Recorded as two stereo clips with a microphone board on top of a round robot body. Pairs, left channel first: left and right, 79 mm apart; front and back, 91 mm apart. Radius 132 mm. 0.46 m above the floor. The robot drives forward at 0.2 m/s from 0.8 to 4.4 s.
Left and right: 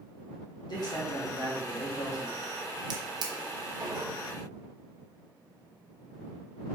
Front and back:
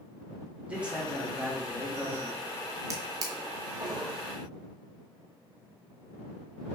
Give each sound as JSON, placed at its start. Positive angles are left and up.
{"t": 0.7, "sound": "a man speaking", "azimuth_deg": 105, "distance_m": 1.7}
{"t": 2.9, "sound": "a drawer", "azimuth_deg": -125, "distance_m": 0.7}